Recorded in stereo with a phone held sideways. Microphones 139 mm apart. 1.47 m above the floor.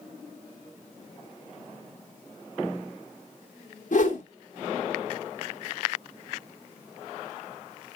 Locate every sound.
3.9 s a whoosh: 60° left (ahead or behind), 1.8 m